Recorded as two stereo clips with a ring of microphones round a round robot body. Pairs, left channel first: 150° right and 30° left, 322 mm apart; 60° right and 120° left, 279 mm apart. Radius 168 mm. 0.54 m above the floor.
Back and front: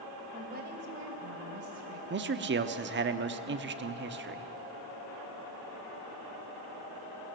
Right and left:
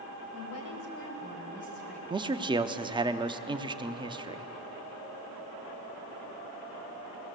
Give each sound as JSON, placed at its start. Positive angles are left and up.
{"t": 0.3, "sound": "a woman speaking", "azimuth_deg": -35, "distance_m": 3.0}
{"t": 2.1, "sound": "a man speaking", "azimuth_deg": 55, "distance_m": 0.9}